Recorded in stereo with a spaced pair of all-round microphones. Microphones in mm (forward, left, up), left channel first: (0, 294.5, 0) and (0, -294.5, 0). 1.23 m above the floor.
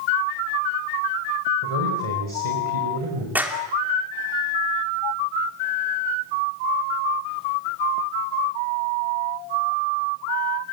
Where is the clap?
5° right (ahead or behind), 3 m.